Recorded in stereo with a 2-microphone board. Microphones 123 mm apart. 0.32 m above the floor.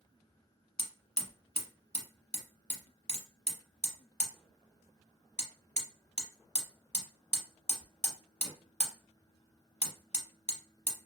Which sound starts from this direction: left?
Hammering, at 0.8 s.